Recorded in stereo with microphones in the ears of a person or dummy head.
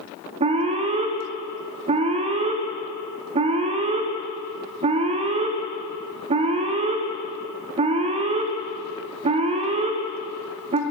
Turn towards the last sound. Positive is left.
turn(degrees=-35)  # may be behind; listen again after turning